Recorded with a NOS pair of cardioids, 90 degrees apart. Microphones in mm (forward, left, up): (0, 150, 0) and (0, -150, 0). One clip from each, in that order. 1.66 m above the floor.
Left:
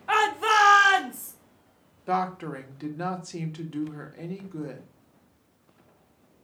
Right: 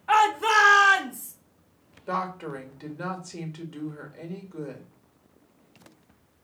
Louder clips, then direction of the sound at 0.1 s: Right 2 dB; 5° left.